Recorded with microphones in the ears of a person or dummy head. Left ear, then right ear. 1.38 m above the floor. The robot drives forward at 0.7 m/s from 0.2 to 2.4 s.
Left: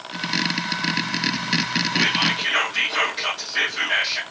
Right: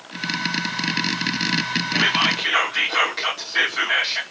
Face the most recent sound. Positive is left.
turn(degrees=-40)  # may be behind; listen again after turning